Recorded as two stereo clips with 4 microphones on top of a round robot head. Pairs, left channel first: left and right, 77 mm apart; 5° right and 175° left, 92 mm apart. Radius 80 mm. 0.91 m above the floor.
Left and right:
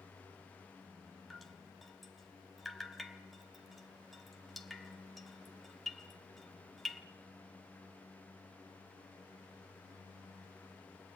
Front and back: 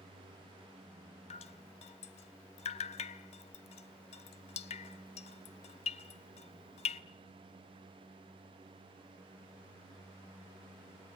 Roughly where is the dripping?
Ahead.